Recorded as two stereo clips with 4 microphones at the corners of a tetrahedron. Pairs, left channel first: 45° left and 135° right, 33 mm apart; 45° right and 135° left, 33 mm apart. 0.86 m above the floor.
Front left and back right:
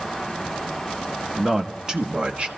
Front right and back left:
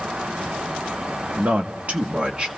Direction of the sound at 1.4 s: 145° left.